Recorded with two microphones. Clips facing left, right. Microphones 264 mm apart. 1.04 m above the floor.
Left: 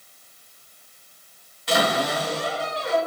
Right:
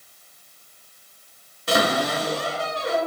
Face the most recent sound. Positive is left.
turn(degrees=-50)  # may be behind; listen again after turning